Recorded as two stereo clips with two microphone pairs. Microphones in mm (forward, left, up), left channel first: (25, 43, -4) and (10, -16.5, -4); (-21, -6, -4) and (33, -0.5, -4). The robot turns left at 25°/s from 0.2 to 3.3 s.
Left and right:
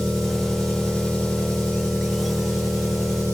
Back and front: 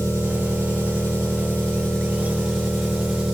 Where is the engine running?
165° left, 4.5 m; by 3.4 s 85° left, 4.5 m.